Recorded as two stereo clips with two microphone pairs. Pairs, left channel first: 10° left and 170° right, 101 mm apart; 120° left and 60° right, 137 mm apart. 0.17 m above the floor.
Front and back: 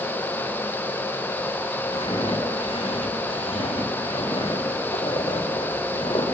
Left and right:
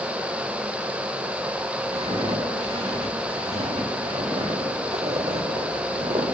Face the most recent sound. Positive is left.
turn(degrees=-30)